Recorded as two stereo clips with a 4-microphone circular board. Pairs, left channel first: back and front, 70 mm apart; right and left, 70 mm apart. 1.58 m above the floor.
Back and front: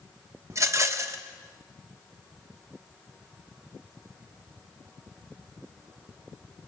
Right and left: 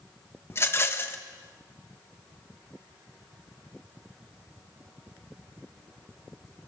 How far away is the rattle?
About 1.3 m.